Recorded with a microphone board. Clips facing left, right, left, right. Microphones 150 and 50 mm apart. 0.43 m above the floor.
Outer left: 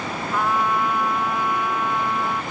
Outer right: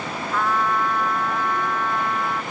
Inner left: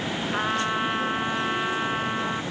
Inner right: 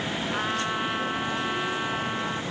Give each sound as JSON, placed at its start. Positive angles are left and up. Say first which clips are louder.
{"t": 0.3, "sound": "a trumpet", "louder": "even, inner left 4 dB", "side_deg": 10}